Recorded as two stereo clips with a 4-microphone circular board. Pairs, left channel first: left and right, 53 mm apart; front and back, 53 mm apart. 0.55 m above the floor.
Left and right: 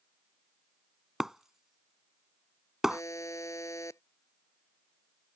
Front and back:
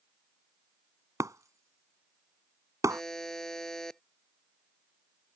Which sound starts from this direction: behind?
Breaking glass, at 1.2 s.